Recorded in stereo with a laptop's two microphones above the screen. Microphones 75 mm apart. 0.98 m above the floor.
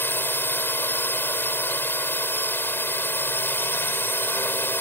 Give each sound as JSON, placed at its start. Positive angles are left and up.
{"t": 0.0, "sound": "a drone", "side_deg": 30}